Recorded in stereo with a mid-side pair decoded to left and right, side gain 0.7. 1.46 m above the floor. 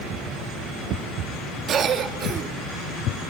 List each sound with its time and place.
1.7 s a cough: 40° right, 3 m